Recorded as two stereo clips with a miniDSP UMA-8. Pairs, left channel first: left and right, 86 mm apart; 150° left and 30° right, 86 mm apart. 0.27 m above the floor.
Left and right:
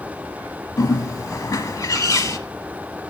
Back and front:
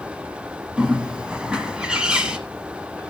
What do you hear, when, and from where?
0.8 s a bird: 45° left, 0.9 m